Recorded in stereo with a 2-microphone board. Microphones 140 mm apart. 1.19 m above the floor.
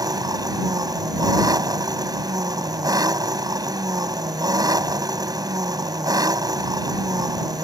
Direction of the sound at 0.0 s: 25° right (ahead or behind).